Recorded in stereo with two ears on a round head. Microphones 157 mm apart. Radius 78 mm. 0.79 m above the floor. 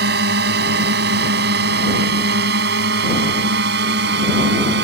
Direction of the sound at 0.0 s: 65° right (ahead or behind).